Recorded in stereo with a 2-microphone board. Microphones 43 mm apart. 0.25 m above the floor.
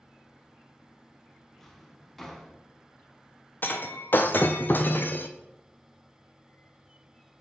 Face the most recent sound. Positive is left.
turn(degrees=50)  # may be behind; listen again after turning